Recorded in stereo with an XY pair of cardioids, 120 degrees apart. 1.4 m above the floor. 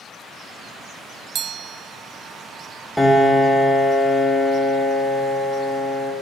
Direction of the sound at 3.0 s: 5° left.